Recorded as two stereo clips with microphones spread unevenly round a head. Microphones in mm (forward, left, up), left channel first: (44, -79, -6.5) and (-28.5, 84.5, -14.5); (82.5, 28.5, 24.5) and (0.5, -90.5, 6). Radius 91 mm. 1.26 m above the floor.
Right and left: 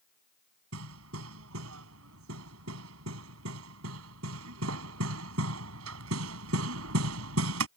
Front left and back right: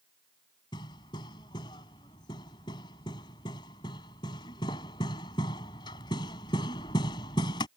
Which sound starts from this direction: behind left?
Hammering, at 0.7 s.